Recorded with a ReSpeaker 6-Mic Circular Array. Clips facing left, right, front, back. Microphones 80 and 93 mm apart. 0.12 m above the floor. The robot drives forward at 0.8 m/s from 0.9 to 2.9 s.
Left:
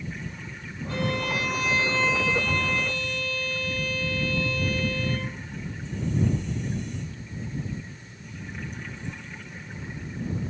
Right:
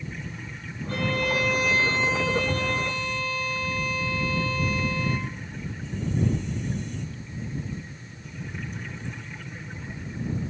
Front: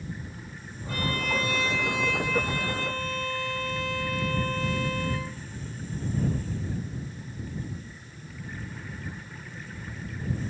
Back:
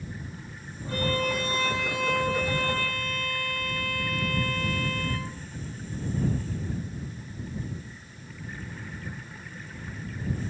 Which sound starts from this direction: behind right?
A violin, at 0.9 s.